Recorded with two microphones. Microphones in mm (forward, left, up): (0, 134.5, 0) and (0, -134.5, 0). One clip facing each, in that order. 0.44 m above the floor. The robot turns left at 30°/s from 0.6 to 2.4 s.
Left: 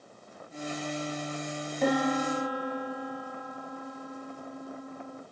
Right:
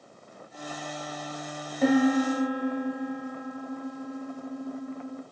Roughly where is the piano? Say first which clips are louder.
Right 6 dB; centre.